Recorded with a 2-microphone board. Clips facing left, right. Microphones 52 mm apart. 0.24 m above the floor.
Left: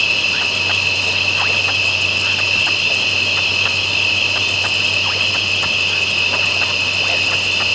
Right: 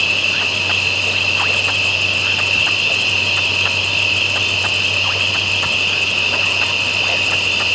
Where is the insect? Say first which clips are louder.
Even; 10° right (ahead or behind), 8 m.